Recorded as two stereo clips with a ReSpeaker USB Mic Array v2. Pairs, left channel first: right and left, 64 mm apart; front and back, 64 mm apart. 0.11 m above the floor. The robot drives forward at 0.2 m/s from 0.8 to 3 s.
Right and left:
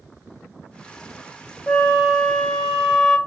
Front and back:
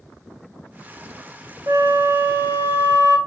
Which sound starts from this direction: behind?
A flute, at 1.7 s.